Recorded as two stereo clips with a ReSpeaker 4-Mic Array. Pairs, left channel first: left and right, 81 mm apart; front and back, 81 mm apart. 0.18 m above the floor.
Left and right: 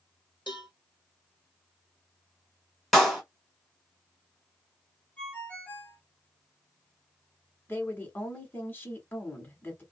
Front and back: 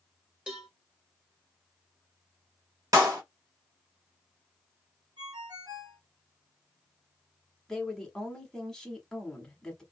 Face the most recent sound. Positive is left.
turn(degrees=75)